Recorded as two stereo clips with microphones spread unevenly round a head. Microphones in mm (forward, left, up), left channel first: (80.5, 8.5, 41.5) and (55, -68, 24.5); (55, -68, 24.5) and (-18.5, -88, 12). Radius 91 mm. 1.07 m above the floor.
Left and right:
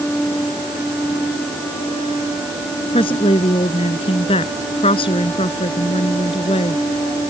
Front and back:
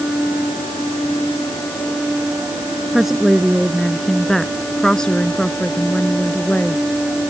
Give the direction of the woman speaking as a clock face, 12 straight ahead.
8 o'clock.